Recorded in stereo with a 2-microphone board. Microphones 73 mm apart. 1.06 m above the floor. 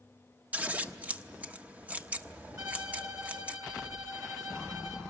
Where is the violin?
60° right (ahead or behind), 3 m.